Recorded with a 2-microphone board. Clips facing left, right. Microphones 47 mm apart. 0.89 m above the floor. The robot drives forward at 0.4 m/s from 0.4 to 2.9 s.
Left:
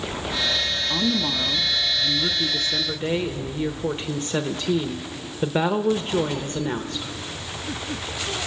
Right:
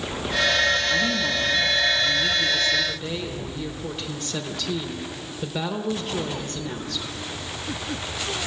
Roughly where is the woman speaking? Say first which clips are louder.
Right 1 dB; left.